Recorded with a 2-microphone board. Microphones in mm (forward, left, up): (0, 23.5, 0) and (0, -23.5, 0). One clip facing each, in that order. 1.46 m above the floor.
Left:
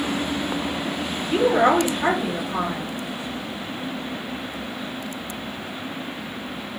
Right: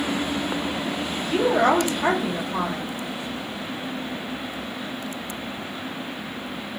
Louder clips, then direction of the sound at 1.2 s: Left 2 dB; 20° left (ahead or behind).